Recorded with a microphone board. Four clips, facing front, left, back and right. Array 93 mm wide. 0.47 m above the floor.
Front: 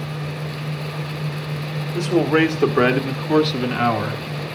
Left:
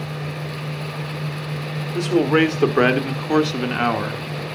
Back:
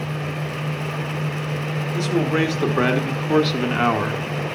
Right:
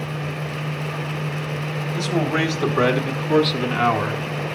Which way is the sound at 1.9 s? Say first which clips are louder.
Left 6 dB, front 4 dB; 55° left.